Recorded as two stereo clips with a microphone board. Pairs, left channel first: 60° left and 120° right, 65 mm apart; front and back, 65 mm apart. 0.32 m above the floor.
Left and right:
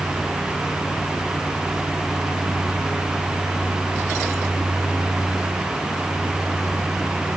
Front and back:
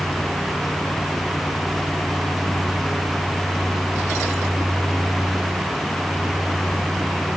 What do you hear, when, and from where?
Only background noise.